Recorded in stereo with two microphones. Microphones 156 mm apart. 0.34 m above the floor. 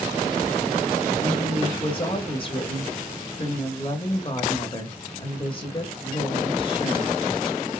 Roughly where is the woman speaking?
Left.